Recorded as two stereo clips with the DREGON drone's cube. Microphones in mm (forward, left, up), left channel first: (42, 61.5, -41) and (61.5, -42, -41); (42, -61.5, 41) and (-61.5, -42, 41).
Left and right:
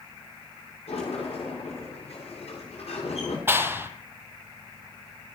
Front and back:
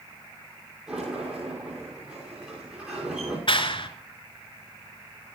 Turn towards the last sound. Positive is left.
turn(degrees=-15)